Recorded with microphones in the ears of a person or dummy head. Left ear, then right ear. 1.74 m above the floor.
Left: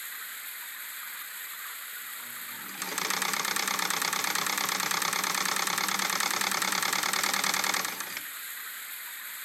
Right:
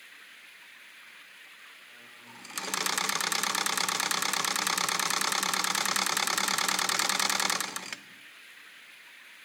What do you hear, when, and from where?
0.0 s running water: 55° left (ahead or behind)